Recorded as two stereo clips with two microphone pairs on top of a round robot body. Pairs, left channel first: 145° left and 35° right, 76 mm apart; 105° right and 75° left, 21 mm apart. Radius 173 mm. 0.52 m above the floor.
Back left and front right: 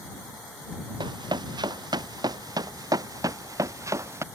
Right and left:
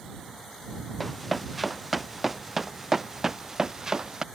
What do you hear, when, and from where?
1.0 s running footsteps: 10° right; by 4.2 s 20° left